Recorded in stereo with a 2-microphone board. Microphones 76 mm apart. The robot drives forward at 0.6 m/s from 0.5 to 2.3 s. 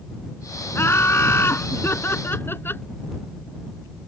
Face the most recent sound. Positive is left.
turn(degrees=30)  # may be behind; listen again after turning